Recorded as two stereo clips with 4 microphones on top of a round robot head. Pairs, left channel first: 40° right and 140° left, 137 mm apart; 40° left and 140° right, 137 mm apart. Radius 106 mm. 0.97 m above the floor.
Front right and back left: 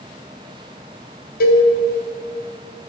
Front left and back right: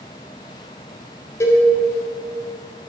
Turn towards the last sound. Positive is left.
turn(degrees=-30)